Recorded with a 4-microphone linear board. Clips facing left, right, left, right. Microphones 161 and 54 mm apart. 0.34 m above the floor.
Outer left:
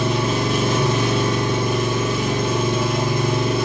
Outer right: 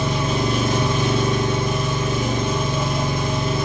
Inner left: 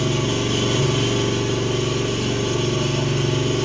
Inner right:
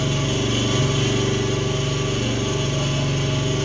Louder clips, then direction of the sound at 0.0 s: Outer left 1 dB, inner left 1 dB; 65° left (ahead or behind).